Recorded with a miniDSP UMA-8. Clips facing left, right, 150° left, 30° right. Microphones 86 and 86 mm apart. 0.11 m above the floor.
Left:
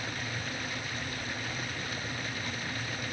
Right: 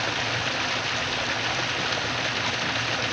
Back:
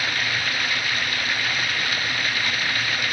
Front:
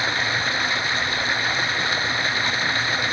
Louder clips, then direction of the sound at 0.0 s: Right 10 dB, front 3 dB; 95° right.